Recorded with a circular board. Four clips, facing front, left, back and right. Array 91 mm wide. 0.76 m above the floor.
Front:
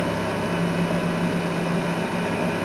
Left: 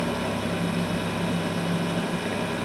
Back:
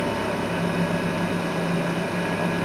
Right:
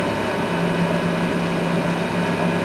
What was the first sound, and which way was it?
Only background noise.